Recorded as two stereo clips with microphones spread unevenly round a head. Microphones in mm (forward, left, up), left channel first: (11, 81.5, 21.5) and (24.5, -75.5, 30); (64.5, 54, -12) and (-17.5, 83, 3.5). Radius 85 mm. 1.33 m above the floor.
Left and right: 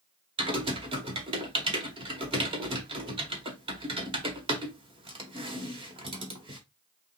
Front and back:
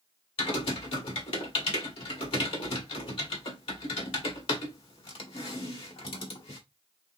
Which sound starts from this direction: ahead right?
Typing on a keyboard, at 0.4 s.